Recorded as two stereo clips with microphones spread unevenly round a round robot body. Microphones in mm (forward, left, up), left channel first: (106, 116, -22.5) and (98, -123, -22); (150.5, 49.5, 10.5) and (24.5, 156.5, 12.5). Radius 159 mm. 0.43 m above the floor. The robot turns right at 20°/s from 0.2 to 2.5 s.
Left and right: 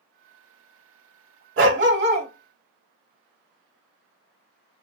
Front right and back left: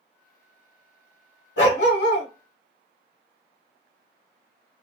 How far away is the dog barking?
About 1.0 m.